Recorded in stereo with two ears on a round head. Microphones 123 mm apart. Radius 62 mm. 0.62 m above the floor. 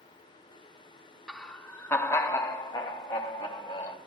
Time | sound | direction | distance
1.3 | laughter | 5° left (ahead or behind) | 0.8 m